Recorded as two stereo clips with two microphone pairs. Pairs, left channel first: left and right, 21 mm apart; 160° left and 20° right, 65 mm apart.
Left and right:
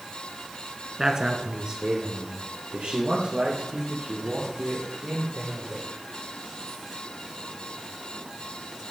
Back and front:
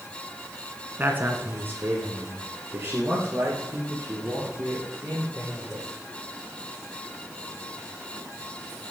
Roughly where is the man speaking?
Ahead right.